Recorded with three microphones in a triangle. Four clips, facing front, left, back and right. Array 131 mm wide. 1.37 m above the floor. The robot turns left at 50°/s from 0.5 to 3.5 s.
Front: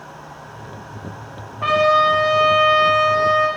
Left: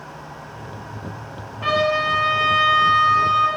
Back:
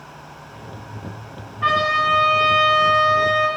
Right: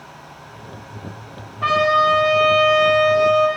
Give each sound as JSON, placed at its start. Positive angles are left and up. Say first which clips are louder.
{"t": 1.6, "sound": "a trumpet", "louder": "right 4 dB, front 4 dB", "azimuth_deg": -10, "distance_m": 9.5}